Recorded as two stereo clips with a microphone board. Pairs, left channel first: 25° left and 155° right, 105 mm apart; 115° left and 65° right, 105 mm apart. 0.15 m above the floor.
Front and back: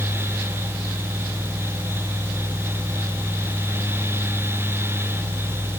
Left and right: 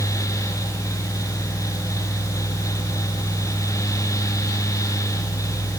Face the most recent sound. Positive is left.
No sound to turn to.